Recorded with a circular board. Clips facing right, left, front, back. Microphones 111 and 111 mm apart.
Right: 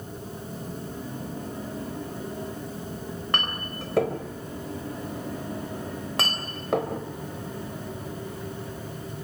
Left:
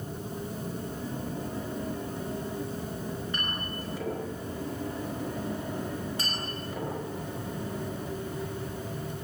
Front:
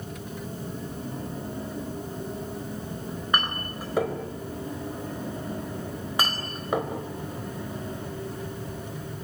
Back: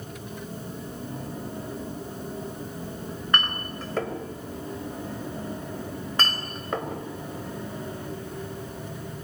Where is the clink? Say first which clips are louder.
Right 4 dB, even; 80° right, 4 m.